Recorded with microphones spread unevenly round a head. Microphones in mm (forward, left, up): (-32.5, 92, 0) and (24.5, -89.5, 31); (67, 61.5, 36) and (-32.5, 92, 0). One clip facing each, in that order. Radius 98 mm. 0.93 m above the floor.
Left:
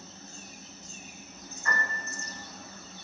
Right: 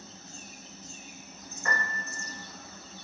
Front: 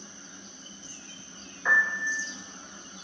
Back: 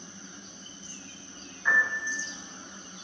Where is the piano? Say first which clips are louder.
Even, front 1 dB; 40° right, 1.4 m.